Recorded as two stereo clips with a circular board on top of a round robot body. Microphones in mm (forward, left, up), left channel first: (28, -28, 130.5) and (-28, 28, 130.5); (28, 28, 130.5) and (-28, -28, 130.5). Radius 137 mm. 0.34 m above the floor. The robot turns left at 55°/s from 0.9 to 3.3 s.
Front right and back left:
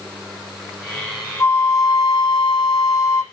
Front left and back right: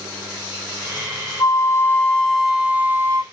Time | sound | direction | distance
1.4 | a flute | 10° left | 2 m